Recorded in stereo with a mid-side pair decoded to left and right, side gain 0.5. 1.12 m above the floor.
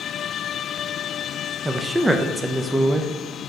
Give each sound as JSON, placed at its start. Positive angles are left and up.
{"t": 1.6, "sound": "a man speaking", "azimuth_deg": -10, "distance_m": 0.5}